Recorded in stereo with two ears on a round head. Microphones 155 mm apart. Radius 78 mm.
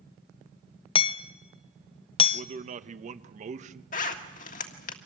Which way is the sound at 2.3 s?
45° right (ahead or behind).